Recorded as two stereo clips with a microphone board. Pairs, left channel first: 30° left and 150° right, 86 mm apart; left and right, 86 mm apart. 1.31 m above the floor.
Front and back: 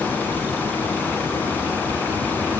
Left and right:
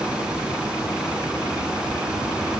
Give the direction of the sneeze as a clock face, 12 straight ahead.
No sneeze in this recording.